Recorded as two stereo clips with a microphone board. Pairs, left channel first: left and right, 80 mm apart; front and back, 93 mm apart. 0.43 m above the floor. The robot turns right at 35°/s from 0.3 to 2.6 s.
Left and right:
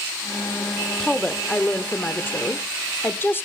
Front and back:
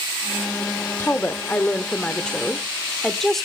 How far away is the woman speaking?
About 0.9 m.